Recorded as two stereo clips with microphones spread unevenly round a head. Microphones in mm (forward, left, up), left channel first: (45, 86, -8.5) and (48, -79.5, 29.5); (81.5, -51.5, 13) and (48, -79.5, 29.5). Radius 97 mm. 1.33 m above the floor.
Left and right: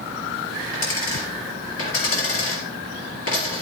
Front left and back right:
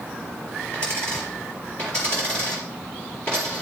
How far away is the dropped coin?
About 4 m.